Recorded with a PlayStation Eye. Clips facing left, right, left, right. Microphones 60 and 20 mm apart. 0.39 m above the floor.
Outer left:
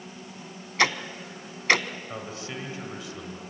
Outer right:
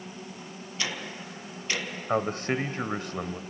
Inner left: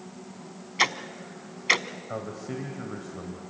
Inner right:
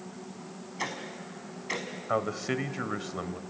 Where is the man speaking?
55° right (ahead or behind), 1.5 m.